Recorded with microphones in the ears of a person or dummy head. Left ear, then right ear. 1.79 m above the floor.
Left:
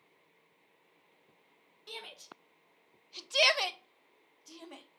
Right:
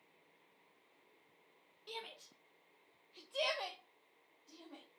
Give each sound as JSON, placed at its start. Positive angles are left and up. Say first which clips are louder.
{"t": 1.9, "sound": "a shout", "louder": "left 3 dB", "side_deg": 10, "distance_m": 1.0}